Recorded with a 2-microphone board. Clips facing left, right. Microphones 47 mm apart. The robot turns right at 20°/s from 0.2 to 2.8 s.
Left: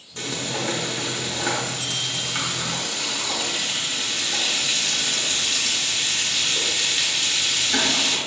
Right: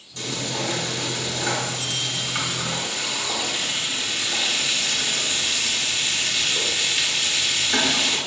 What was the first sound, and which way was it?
Frying, 140° left.